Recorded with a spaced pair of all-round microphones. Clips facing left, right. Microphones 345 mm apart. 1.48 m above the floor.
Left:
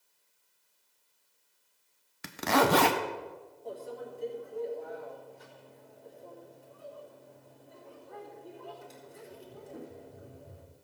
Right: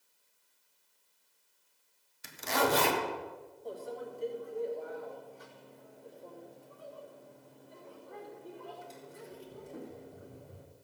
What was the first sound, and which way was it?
A zipper, 75° left (ahead or behind).